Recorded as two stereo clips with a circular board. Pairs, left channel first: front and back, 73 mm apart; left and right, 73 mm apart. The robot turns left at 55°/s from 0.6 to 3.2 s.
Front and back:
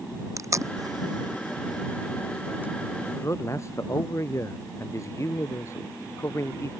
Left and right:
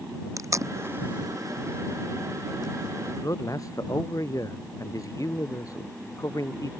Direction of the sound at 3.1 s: 55° left.